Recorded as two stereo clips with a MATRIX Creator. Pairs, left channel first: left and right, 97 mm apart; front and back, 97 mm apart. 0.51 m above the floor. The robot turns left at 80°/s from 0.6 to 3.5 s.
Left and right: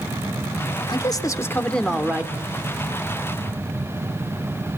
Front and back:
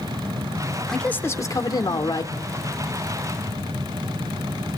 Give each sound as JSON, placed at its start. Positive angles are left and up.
{"t": 0.9, "sound": "a man speaking", "azimuth_deg": 85, "distance_m": 1.8}